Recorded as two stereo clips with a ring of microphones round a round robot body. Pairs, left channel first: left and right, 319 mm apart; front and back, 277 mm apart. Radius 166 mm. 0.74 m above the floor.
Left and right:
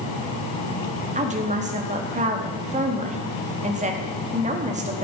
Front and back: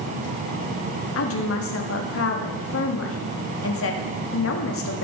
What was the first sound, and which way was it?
A woman speaking, 25° right.